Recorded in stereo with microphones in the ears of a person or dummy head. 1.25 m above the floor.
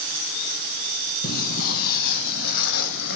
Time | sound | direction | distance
1.2 | footsteps | 60° left (ahead or behind) | 2.5 m